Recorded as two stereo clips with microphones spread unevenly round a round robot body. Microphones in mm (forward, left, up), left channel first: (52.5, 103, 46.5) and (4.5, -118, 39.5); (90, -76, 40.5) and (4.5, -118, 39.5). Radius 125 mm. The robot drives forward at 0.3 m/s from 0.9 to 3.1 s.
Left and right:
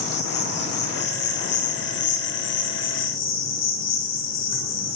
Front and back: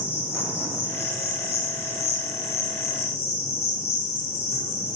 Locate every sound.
0.0 s an insect: 35° left, 3 m; by 5.0 s 45° left, 2.5 m